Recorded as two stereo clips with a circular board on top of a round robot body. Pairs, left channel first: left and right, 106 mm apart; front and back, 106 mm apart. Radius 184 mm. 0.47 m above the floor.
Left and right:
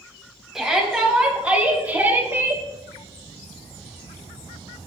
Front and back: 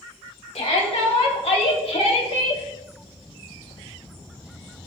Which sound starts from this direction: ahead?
A shout, at 0.6 s.